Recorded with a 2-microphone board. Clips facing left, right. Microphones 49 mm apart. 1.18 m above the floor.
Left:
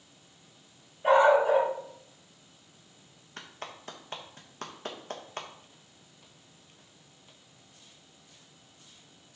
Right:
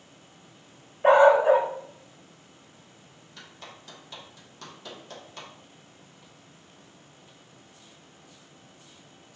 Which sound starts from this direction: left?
A clap, at 3.4 s.